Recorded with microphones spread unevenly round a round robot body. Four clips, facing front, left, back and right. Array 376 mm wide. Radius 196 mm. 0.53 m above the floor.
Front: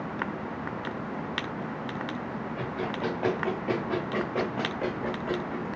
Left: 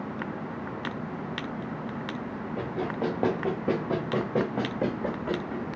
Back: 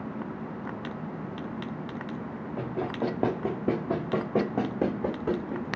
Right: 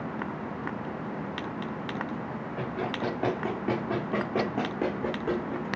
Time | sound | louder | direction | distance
2.6 | running footsteps | left 2 dB, back 3 dB | 150° left | 3 m